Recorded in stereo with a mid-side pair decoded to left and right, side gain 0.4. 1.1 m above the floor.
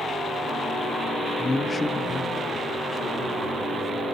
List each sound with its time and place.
1.4 s a man speaking: 15° left, 1.0 m; by 4.0 s 50° left, 4 m